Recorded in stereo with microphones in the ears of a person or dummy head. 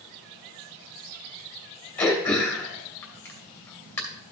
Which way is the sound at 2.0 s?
10° left (ahead or behind).